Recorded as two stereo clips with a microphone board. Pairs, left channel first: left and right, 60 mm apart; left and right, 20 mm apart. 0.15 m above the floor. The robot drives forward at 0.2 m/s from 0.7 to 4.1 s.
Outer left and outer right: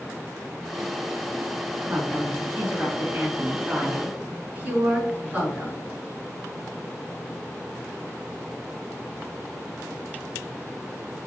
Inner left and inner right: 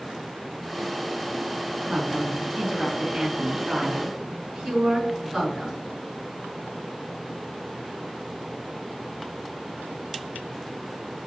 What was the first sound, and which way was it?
A woman speaking, 30° right (ahead or behind).